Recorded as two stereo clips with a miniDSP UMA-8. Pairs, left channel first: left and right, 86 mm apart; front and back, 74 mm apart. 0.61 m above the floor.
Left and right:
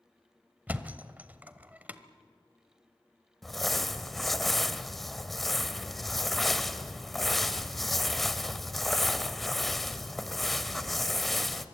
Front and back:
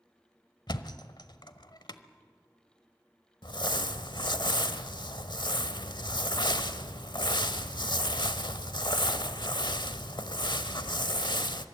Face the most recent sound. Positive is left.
turn(degrees=0)